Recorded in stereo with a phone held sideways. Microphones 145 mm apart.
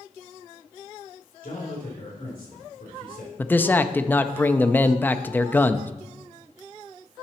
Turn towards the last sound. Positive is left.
turn(degrees=15)  # may be behind; listen again after turning